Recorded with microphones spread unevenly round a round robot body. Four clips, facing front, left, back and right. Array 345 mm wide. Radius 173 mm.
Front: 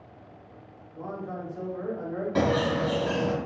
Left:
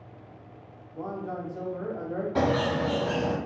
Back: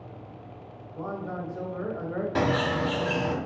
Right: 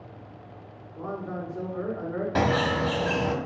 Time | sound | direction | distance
0.9 | a man speaking | 125° left | 1.0 m
2.4 | a bird | 90° right | 0.8 m